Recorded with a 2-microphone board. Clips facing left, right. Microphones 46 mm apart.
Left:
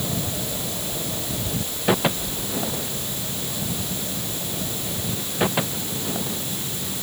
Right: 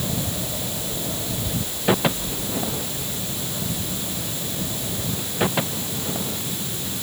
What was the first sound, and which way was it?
Only background noise.